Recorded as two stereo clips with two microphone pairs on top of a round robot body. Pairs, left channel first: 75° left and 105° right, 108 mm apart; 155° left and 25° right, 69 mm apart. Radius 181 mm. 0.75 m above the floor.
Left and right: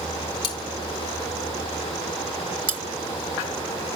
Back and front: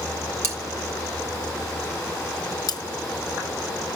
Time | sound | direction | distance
0.4 | cutlery clinking | 30° left | 2.5 m
2.7 | cutlery clinking | straight behind | 1.9 m